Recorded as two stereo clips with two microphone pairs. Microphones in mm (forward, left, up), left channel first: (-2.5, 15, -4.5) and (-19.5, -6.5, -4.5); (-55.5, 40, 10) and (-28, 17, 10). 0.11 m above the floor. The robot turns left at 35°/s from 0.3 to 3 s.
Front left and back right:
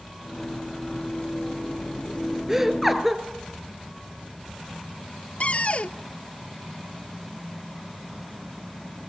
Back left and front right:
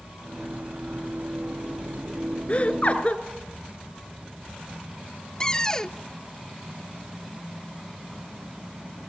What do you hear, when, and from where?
2.5 s laughter: 165° left, 1.9 m; by 3.2 s 145° left, 1.9 m
5.4 s a cupboard door: 75° left, 0.6 m